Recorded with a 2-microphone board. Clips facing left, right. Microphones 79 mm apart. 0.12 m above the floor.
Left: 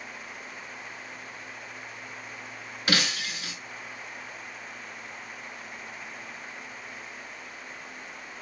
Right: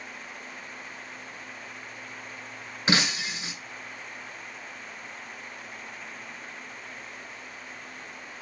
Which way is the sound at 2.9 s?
25° right (ahead or behind).